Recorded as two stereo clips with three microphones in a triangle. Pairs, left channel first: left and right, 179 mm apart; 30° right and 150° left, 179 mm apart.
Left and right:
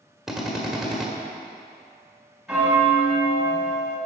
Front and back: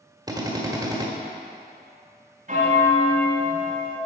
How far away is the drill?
About 1.3 m.